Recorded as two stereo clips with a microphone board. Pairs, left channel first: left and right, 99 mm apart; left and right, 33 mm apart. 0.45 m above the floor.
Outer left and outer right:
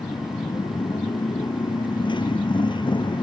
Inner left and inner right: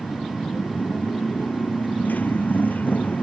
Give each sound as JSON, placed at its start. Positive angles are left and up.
{"t": 0.0, "sound": "a motorcycle", "side_deg": 50}